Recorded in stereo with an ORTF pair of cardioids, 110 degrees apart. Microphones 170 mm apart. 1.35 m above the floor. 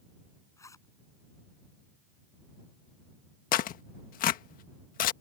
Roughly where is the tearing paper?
Ahead left.